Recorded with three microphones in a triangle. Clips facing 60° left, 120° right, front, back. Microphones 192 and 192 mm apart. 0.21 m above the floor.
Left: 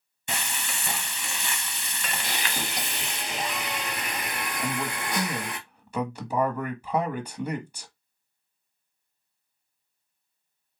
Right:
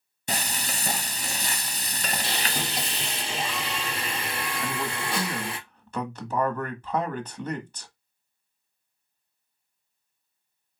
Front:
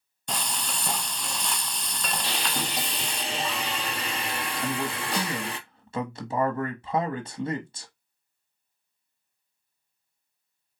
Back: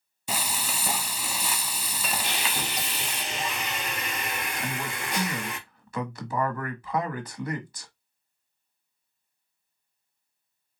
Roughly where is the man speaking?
Ahead.